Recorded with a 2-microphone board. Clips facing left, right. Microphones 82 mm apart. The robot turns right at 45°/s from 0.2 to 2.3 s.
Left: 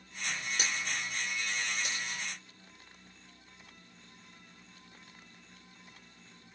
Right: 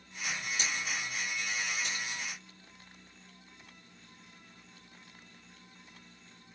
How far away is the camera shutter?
About 1.7 m.